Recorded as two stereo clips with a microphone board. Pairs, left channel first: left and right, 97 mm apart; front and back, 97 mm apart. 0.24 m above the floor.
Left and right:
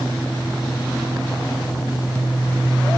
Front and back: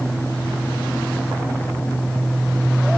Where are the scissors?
No scissors in this recording.